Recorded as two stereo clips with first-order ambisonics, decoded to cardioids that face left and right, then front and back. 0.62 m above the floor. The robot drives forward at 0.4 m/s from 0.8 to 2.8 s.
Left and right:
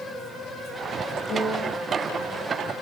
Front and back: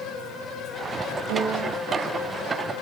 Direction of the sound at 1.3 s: 155° left.